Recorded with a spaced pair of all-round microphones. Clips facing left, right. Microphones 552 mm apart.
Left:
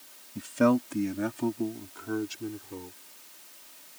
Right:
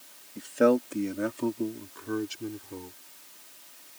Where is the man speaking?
35° left (ahead or behind); by 3.0 s centre (ahead or behind).